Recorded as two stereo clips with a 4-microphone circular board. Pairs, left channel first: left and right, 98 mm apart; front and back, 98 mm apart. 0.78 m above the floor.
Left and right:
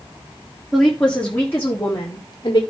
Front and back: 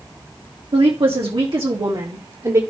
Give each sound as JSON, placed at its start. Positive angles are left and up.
{"t": 0.7, "sound": "a woman speaking", "azimuth_deg": 180, "distance_m": 1.5}